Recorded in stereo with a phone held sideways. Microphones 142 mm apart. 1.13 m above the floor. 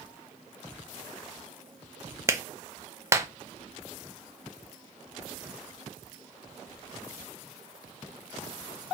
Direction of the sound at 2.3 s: 20° right (ahead or behind).